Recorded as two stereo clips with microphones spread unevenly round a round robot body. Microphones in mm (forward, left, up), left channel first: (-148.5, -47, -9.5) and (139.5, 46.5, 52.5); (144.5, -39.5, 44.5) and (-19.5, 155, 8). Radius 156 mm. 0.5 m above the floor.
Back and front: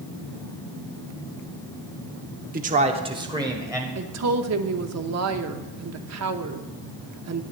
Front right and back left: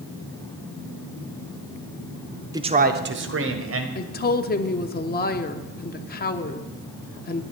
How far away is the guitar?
No guitar in this recording.